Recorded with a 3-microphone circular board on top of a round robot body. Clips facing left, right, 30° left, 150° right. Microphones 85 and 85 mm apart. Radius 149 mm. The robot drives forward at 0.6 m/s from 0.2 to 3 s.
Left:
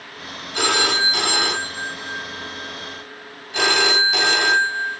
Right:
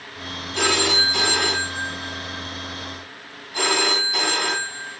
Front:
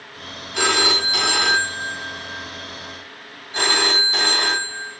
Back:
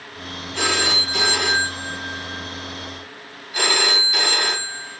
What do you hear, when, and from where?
0.5 s a phone ringing: 50° left, 2.5 m; by 5.0 s 90° left, 1.8 m